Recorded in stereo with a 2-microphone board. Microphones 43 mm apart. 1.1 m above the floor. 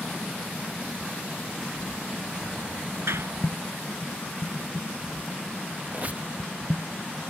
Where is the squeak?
40° right (ahead or behind).